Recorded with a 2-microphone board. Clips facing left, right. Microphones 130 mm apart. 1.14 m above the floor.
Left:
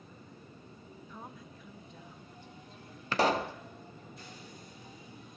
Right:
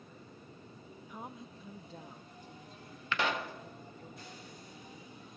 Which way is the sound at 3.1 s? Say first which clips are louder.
Left 6 dB; 35° left (ahead or behind).